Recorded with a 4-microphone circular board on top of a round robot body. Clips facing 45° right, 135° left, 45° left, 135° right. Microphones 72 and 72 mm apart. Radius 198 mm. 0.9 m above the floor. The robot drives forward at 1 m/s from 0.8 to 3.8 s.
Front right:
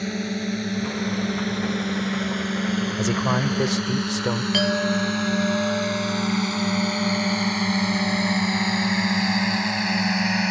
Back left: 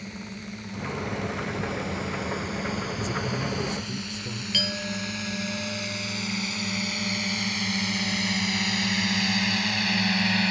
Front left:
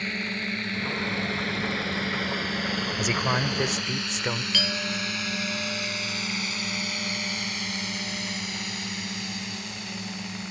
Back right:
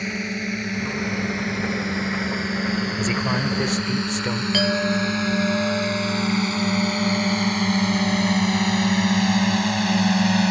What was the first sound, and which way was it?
A drone, 60° right.